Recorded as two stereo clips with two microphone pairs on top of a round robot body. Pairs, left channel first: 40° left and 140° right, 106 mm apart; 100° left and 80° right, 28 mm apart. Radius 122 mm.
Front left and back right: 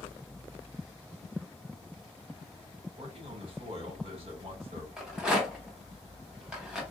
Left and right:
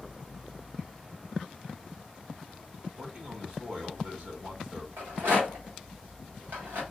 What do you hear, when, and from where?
3.0 s a man speaking: 125° right, 2 m
5.0 s a rattle: 60° right, 0.8 m